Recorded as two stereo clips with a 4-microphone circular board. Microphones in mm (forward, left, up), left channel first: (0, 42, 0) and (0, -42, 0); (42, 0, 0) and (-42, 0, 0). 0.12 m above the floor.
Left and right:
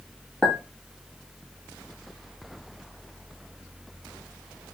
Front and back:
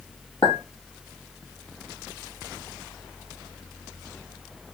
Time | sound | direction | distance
0.4 | a clink | 10° left | 2 m